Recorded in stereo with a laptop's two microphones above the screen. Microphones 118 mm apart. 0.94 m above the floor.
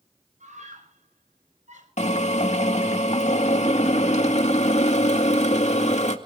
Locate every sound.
0.4 s a scream: 80° right, 6 m
2.0 s a drill: 65° left (ahead or behind), 2 m